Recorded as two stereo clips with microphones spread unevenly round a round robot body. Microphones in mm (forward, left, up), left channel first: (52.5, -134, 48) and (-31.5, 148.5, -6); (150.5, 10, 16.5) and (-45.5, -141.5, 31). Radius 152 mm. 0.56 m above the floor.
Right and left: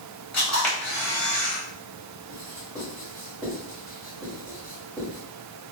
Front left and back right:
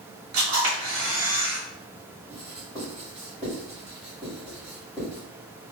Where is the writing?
160° left, 1.5 m.